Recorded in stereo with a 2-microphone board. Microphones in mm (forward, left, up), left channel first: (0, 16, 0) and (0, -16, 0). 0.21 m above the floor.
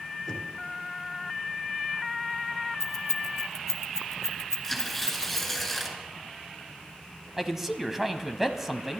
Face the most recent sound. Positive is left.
turn(degrees=-10)  # may be behind; listen again after turning